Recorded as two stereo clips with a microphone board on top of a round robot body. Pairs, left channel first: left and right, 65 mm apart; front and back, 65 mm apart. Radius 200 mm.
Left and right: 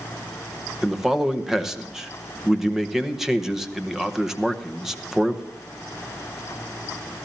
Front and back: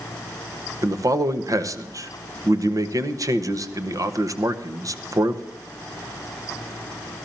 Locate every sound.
0.8 s a man speaking: 175° right, 1.5 m